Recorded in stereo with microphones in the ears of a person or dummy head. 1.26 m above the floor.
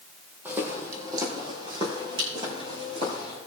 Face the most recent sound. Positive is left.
turn(degrees=-30)  # may be behind; listen again after turning